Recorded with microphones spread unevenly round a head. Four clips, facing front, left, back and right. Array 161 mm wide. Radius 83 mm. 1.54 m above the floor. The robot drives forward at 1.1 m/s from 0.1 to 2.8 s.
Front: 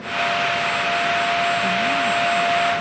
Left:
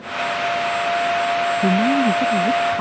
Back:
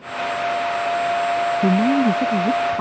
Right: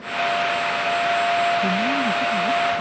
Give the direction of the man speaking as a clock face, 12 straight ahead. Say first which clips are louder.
Left 5 dB, back 4 dB; 7 o'clock.